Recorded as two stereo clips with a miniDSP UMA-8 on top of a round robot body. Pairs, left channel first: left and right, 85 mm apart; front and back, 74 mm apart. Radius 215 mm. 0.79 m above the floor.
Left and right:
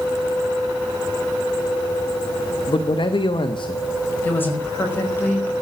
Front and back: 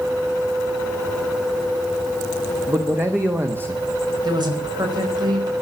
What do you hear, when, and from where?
2.7 s a man speaking: 120° left, 1.5 m
4.2 s a woman speaking: 155° left, 5.5 m